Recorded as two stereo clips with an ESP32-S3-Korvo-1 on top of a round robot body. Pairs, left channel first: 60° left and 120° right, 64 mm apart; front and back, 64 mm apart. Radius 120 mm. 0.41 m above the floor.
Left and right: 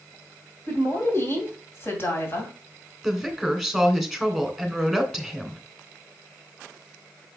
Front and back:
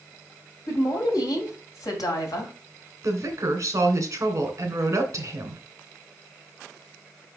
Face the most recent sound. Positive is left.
turn(degrees=150)